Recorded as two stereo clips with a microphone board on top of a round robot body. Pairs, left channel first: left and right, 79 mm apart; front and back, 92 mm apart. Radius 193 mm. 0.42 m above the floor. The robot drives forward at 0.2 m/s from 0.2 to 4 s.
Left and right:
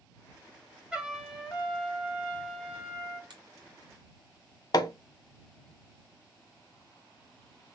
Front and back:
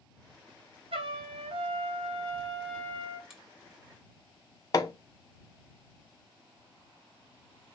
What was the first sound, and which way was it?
A trumpet, 175° right.